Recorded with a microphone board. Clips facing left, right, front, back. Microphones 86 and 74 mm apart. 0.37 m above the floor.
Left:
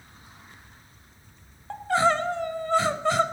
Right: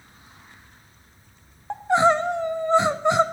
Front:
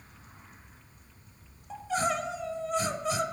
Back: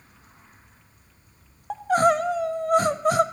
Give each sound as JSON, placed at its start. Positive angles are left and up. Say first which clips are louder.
{"t": 1.7, "sound": "crying", "louder": "right 4 dB, back 10 dB", "azimuth_deg": -155, "distance_m": 0.5}